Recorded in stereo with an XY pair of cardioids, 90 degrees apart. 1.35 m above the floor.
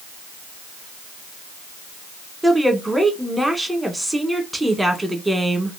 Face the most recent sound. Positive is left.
turn(degrees=-10)